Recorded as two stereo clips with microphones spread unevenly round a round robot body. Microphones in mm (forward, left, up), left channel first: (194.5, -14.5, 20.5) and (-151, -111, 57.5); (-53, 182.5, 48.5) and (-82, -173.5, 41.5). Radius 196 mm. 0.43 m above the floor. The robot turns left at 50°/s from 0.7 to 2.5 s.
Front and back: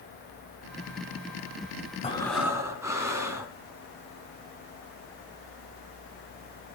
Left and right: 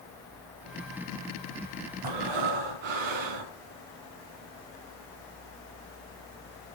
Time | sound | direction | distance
2.0 | breathing | 55° right | 3.5 m